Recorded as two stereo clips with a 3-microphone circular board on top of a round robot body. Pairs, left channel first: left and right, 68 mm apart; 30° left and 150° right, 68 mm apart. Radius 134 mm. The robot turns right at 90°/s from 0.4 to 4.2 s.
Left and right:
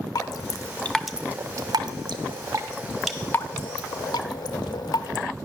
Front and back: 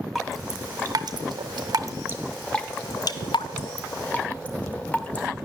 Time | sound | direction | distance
0.1 | dripping | 120° left | 0.5 m